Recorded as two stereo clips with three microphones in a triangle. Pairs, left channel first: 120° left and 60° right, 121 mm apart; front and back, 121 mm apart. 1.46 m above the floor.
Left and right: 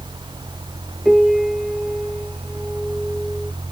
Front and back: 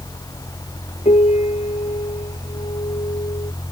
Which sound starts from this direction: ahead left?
A piano, at 1.1 s.